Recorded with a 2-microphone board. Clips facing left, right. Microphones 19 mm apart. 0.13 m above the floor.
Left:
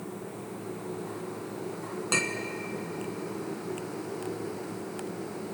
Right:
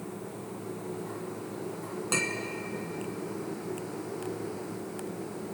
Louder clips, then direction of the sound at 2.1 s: Left 2 dB; 15° left (ahead or behind).